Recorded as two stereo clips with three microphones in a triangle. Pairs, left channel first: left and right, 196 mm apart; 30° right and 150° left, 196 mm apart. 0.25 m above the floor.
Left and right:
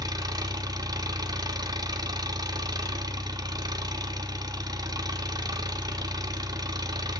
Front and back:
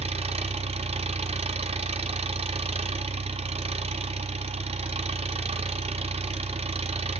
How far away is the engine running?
About 1.4 m.